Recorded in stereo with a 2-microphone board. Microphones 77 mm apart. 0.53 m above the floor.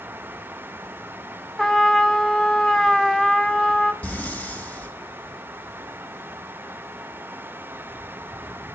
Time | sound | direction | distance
1.6 | a trumpet | 5° left (ahead or behind) | 0.9 m
4.0 | breathing | 20° left (ahead or behind) | 2.5 m